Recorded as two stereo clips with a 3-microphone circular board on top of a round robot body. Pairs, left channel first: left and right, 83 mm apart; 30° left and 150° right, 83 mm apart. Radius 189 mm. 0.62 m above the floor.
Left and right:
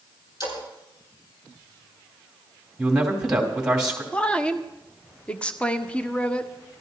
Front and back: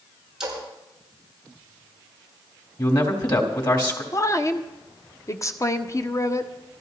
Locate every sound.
0.4 s a splash: 125° left, 7.5 m
2.8 s a man speaking: 5° right, 3 m
4.1 s a woman speaking: 20° left, 1.1 m